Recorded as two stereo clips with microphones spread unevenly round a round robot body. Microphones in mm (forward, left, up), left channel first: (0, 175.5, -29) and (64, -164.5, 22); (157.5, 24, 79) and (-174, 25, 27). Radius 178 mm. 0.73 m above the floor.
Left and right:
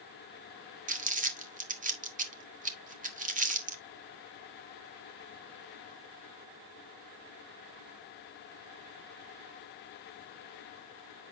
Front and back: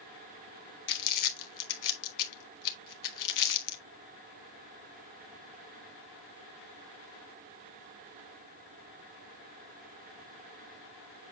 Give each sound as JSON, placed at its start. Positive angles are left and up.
{"t": 0.9, "sound": "crumpling", "azimuth_deg": -10, "distance_m": 1.5}